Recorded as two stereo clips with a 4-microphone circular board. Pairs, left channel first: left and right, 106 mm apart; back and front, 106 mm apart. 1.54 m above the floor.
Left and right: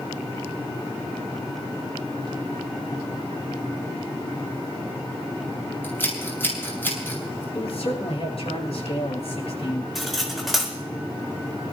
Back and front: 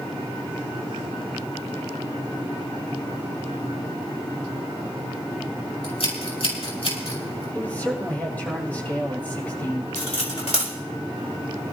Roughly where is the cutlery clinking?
Behind.